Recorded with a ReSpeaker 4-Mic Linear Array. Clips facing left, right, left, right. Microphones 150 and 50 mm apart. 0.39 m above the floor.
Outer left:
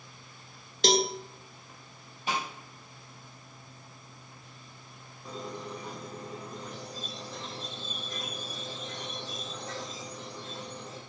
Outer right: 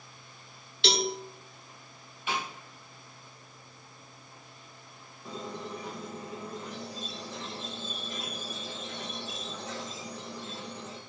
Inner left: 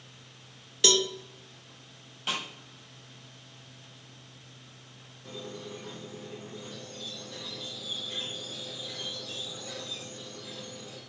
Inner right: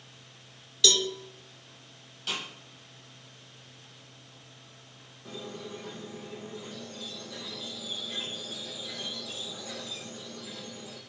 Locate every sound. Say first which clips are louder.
0.8 s a cowbell: outer left 4 dB, inner left 1 dB; 40° left (ahead or behind), 0.7 m
2.3 s a snare drum: outer left 1 dB, inner left 2 dB; 35° left (ahead or behind), 5 m
5.2 s a squeak: even, inner right 1 dB; 5° right (ahead or behind), 1.9 m